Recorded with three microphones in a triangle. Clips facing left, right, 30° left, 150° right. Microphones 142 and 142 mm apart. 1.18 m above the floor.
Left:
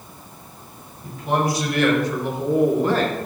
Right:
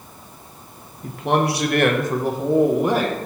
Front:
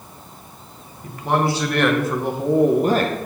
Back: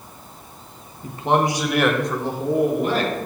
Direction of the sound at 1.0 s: 90° right.